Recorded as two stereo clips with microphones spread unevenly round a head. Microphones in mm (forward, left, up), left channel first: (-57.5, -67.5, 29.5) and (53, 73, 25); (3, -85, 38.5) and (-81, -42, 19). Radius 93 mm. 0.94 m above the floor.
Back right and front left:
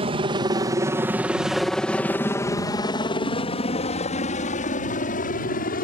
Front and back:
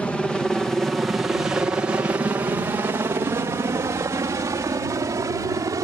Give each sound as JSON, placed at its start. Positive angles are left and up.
{"t": 0.0, "sound": "a helicopter", "azimuth_deg": 60}